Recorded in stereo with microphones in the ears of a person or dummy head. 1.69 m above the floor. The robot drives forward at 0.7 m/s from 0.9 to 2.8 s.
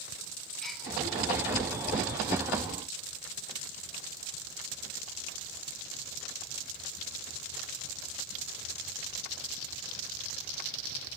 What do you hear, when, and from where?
0.6 s a gasp: centre (ahead or behind), 8.5 m